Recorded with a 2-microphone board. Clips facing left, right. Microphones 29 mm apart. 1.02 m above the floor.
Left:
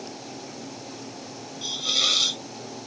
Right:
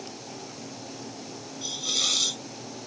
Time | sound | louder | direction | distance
1.6 | a hiss | left 4 dB | 20° left (ahead or behind) | ?